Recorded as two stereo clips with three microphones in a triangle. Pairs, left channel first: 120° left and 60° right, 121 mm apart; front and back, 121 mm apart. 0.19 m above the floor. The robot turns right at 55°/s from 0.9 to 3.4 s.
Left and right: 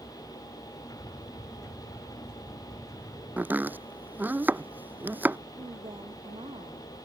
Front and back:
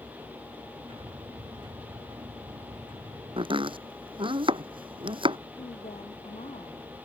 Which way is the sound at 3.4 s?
140° right.